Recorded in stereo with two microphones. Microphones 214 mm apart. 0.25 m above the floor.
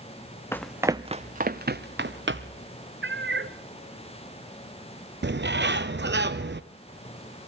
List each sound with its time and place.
0.5 s running footsteps: 10° left (ahead or behind), 0.7 m; by 2.6 s 65° right (ahead or behind), 2.0 m
3.0 s a cat meowing: 60° right (ahead or behind), 1.2 m
5.2 s a bird: 55° right (ahead or behind), 0.9 m